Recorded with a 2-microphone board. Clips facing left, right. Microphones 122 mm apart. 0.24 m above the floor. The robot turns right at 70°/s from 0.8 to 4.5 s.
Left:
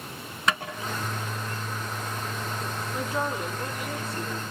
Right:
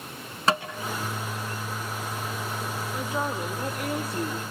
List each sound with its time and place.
0.5 s tapping: 30° right (ahead or behind), 2.5 m
2.9 s a woman speaking: 175° right, 7.5 m; by 4.4 s 70° right, 7.5 m